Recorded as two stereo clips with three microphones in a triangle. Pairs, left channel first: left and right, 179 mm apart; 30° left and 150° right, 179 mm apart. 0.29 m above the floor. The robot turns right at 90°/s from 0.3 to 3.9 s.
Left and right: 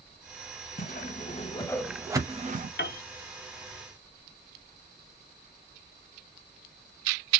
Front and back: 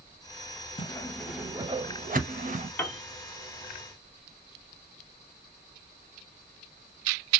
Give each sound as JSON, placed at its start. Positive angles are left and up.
{"t": 0.8, "sound": "a whoosh", "azimuth_deg": 80, "distance_m": 0.5}
{"t": 2.8, "sound": "a piano", "azimuth_deg": 110, "distance_m": 0.5}